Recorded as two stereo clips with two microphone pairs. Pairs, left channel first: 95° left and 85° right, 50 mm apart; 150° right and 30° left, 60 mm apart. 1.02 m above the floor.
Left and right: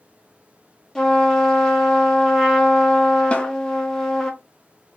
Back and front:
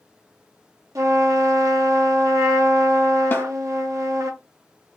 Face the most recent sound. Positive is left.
turn(degrees=155)